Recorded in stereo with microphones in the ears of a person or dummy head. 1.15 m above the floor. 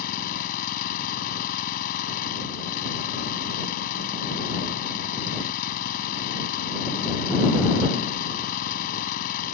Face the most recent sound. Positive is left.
turn(degrees=55)  # may be behind; listen again after turning